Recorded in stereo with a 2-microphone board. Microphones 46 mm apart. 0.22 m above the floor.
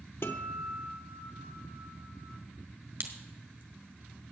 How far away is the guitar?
About 1.2 m.